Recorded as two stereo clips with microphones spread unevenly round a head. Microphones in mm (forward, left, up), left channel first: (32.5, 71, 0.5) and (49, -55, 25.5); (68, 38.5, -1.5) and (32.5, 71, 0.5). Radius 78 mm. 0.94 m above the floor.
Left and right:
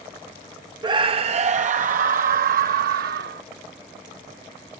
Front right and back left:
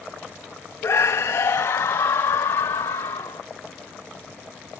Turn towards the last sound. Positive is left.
turn(degrees=-85)